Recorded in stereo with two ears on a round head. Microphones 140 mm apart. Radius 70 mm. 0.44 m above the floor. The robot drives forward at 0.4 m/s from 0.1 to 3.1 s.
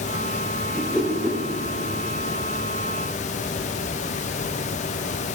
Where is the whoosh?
5° left (ahead or behind), 1.9 m.